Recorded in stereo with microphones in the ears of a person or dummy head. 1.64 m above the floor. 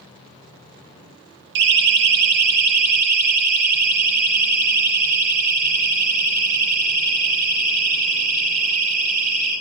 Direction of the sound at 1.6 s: 60° right (ahead or behind).